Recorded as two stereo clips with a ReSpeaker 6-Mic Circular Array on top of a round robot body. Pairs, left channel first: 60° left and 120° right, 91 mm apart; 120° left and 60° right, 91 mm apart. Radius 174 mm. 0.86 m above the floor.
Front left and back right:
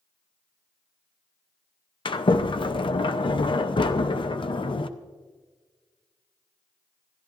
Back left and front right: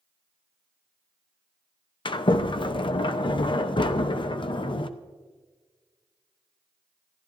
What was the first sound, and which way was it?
A sliding door, 90° left.